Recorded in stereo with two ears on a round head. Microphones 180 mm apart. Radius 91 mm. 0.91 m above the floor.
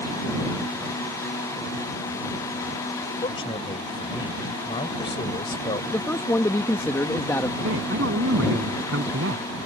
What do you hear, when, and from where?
3.2 s a man speaking: 25° left (ahead or behind)
5.9 s a man speaking: 10° left (ahead or behind)
7.6 s a man speaking: 65° right (ahead or behind)